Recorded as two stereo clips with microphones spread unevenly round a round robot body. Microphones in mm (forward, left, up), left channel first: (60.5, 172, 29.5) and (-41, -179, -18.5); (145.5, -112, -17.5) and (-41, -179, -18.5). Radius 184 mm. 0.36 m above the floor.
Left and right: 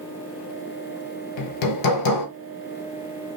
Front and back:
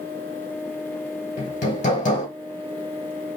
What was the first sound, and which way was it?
Hammering, 65° left.